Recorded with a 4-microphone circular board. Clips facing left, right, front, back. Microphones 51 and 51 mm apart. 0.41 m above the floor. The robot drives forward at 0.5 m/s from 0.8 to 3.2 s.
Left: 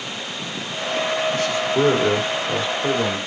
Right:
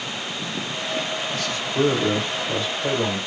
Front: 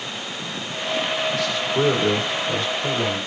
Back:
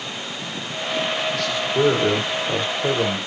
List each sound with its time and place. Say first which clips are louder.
1.3 s a man speaking: left 4 dB, back 1 dB; 80° left, 1.0 m; by 3.2 s 145° left, 1.3 m